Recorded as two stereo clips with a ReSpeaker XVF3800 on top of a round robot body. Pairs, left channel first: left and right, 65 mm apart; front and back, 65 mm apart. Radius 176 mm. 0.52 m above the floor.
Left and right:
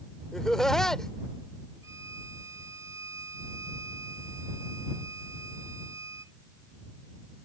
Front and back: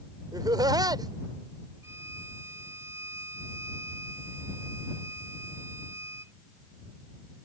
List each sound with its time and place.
0.3 s laughter: 175° left
1.8 s a violin: 130° right